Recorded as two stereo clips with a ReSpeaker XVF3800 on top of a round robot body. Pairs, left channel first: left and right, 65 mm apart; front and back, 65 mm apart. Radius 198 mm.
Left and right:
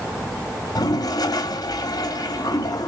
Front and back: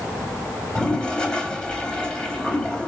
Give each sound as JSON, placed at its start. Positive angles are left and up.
{"t": 0.8, "sound": "a toilet flushing", "azimuth_deg": 80, "distance_m": 1.5}